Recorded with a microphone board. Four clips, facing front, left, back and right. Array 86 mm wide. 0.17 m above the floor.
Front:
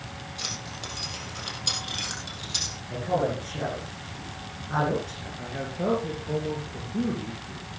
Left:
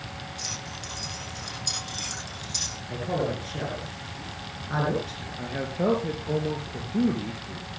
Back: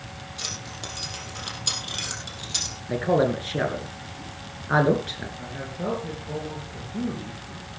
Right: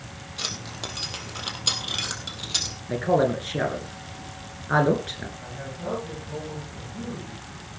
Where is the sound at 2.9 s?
140° right, 2 m.